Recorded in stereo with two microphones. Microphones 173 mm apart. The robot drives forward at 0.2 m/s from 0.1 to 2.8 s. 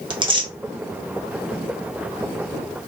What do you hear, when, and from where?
0.1 s tearing paper: 30° right (ahead or behind), 0.7 m